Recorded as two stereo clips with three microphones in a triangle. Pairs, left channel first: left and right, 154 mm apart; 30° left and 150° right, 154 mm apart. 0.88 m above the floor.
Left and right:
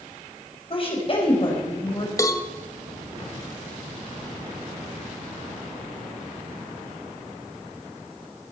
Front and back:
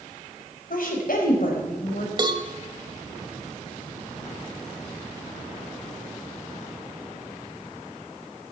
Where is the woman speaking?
40° left, 4.5 m.